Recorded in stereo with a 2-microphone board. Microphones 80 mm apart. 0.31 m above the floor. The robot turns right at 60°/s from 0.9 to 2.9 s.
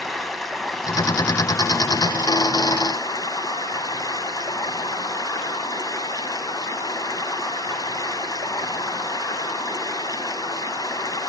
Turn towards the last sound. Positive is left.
turn(degrees=120)